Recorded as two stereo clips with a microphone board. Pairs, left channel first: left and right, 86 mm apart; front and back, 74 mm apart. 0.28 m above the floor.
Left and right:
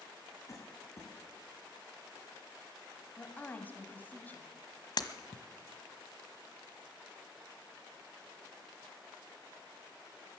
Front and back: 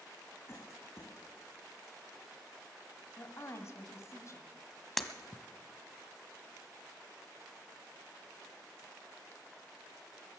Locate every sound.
0.5 s a cough: 45° left, 2.5 m
3.2 s a woman speaking: 30° left, 2.0 m
5.0 s breaking glass: 85° left, 1.1 m